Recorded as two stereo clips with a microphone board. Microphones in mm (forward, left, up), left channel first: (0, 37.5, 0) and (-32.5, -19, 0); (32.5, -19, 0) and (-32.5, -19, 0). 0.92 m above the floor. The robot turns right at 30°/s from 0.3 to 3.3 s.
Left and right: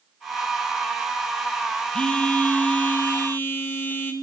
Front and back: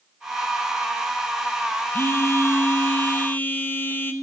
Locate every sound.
1.9 s a phone buzzing: 5° right, 0.6 m; by 4.1 s 35° left, 0.6 m